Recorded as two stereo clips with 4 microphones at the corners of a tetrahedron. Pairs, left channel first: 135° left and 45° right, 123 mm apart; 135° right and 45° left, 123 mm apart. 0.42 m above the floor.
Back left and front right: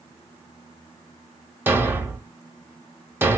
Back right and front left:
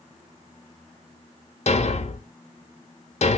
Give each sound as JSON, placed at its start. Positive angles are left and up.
{"t": 1.7, "sound": "a thud", "azimuth_deg": -115, "distance_m": 0.7}